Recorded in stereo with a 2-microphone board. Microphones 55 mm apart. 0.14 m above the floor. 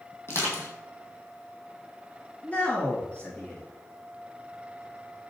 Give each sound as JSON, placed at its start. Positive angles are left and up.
{"t": 0.3, "sound": "crushing", "side_deg": 45, "distance_m": 1.4}
{"t": 2.4, "sound": "a man speaking", "side_deg": 25, "distance_m": 1.9}